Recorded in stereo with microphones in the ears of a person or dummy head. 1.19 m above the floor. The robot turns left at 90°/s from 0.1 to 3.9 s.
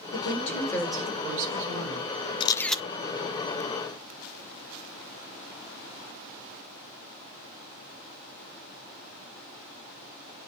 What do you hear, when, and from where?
0.1 s a woman speaking: 70° left, 4.5 m; by 2.3 s 130° right, 4.5 m
2.4 s a camera shutter: 30° left, 1.0 m; by 2.8 s 10° right, 1.0 m